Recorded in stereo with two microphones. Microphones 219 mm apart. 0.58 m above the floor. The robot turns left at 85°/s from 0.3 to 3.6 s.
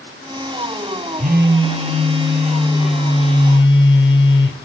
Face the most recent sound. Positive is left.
turn(degrees=120)